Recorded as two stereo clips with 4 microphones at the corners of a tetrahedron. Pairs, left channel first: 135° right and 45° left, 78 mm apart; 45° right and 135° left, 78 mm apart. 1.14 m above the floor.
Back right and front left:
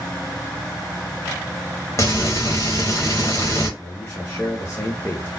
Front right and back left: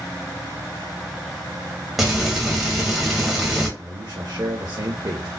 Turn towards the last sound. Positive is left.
turn(degrees=165)